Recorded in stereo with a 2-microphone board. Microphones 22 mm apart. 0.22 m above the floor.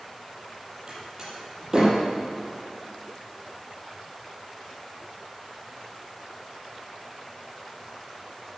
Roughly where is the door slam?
Right.